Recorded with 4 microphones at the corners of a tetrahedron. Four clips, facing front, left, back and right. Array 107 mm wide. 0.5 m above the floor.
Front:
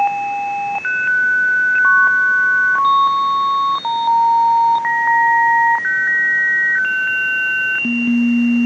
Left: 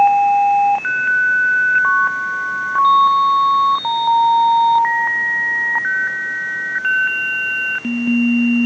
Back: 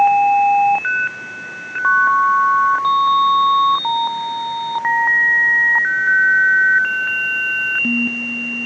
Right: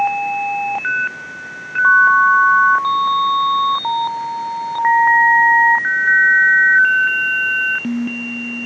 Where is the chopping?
I don't hear chopping.